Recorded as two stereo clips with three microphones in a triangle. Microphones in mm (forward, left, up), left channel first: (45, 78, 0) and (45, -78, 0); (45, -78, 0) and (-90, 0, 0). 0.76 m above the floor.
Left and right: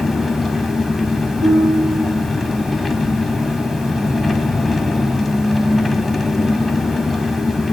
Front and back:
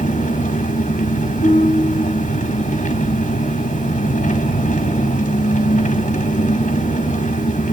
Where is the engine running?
Straight ahead, 2 m.